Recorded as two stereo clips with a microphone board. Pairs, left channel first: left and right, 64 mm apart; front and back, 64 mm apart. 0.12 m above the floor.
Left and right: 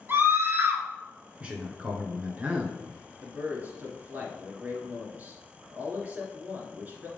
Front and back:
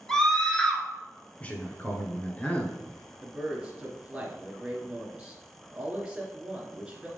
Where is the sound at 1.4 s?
45° right, 1.2 m.